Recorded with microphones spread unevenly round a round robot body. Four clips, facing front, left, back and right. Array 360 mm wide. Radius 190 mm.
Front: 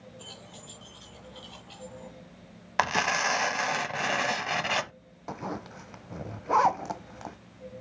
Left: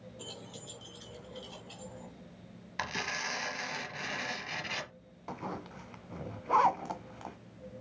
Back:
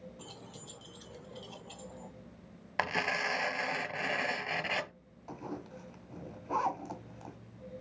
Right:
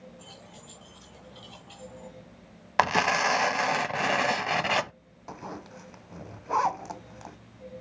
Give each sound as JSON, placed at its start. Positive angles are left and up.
{"t": 0.2, "sound": "keys jangling", "azimuth_deg": 120, "distance_m": 1.2}
{"t": 2.8, "sound": "tearing paper", "azimuth_deg": -60, "distance_m": 0.6}
{"t": 5.3, "sound": "a zipper", "azimuth_deg": 10, "distance_m": 1.1}